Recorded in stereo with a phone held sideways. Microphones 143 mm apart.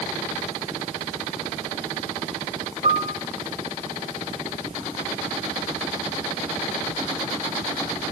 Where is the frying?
I don't hear frying.